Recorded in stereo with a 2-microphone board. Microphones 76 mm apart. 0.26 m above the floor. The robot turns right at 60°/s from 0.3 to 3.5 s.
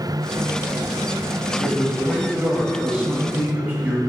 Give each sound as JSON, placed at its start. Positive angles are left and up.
{"t": 1.6, "sound": "a man speaking", "side_deg": 5, "distance_m": 0.9}